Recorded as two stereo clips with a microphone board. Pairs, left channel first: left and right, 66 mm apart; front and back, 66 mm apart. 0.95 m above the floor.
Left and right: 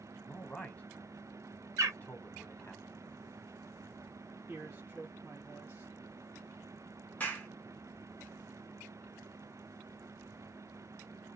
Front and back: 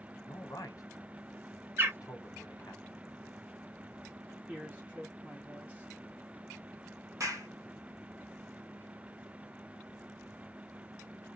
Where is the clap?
155° left, 1.1 m.